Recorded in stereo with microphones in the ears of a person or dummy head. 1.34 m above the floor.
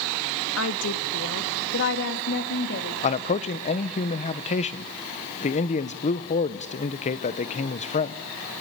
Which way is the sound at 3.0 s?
35° left (ahead or behind).